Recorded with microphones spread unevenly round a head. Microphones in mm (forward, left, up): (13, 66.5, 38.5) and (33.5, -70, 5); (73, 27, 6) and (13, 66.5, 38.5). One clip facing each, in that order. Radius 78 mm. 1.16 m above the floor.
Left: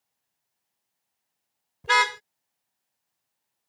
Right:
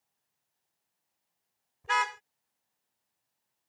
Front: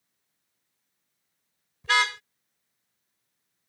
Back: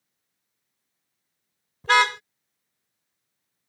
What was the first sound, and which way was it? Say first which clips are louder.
A car horn: left 6 dB, back 5 dB; 125° left.